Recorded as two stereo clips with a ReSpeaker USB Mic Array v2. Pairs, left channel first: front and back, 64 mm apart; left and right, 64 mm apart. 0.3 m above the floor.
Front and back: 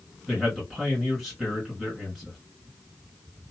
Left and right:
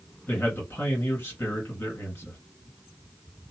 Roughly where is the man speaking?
Left.